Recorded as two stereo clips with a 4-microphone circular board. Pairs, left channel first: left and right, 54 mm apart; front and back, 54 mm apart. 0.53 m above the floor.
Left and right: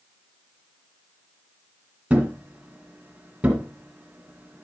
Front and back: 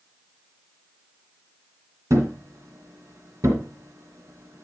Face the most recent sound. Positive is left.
turn(degrees=-155)